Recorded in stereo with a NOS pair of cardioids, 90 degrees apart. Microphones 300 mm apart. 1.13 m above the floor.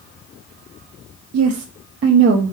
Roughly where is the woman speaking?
Ahead right.